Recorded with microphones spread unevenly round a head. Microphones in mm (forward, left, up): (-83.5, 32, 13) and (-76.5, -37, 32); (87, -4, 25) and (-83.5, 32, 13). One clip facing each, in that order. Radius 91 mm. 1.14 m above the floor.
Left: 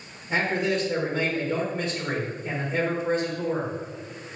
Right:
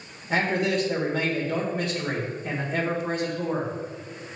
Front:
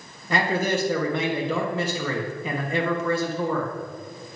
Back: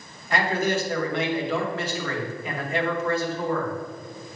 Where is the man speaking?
15° right, 1.4 m.